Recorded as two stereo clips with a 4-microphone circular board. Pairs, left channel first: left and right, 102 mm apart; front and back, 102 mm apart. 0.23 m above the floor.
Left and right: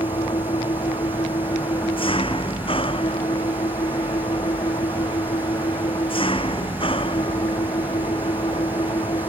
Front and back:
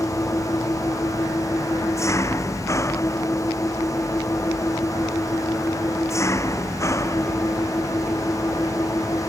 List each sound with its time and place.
0.0 s an engine running: 60° left